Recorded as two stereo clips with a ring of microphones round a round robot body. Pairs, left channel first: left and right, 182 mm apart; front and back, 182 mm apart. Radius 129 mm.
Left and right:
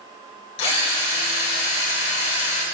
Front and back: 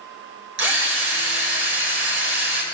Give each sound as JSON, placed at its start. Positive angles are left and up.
{"t": 0.6, "sound": "a drill", "azimuth_deg": 160, "distance_m": 3.5}